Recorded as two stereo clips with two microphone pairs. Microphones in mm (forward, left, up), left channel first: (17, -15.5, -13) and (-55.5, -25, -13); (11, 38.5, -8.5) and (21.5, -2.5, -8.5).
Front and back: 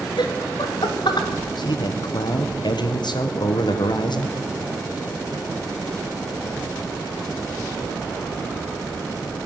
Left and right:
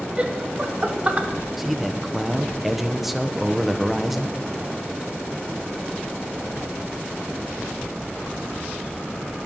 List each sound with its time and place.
0.2 s laughter: 15° right, 1.3 m
1.6 s a man speaking: 10° left, 0.8 m